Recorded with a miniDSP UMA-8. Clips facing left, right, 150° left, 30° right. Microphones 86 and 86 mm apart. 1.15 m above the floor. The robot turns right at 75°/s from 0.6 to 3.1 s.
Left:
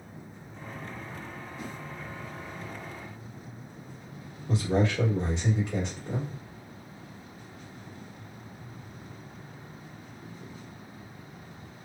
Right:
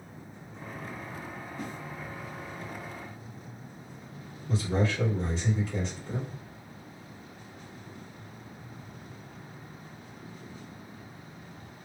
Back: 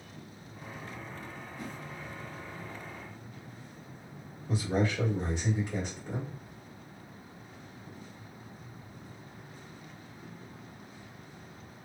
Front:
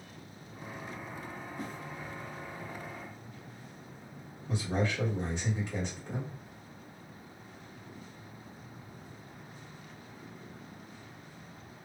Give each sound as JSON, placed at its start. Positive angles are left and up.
{"t": 1.6, "sound": "a whoosh", "azimuth_deg": -50, "distance_m": 1.2}
{"t": 4.5, "sound": "a man speaking", "azimuth_deg": 70, "distance_m": 1.4}